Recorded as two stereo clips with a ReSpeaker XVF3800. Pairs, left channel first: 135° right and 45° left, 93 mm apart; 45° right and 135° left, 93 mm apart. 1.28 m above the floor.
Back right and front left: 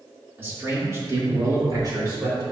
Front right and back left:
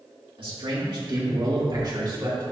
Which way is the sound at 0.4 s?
110° left.